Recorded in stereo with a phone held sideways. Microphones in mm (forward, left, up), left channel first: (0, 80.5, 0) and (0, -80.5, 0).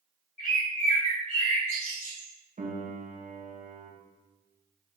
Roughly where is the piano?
Right.